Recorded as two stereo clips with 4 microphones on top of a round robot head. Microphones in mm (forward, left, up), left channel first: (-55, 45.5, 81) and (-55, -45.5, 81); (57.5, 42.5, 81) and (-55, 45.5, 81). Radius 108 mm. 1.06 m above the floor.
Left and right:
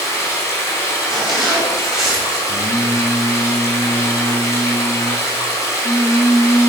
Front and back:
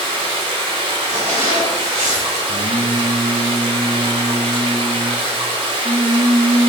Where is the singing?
125° left, 0.6 m.